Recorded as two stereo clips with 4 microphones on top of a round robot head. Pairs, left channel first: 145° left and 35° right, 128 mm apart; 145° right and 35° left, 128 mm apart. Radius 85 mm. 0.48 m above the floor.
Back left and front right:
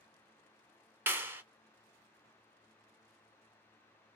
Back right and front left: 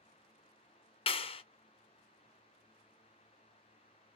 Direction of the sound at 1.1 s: 110° right.